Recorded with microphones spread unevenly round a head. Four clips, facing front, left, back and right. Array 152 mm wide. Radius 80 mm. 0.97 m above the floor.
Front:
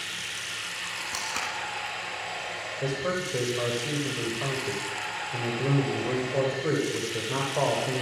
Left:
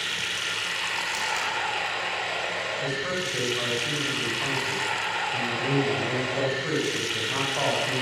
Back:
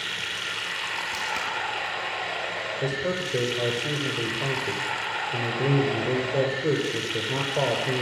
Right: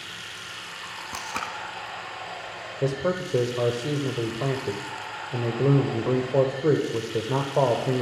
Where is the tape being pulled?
90° right, 2.5 m.